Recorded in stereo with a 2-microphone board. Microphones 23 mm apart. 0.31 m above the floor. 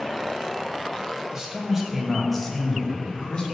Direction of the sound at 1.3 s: 20° right (ahead or behind).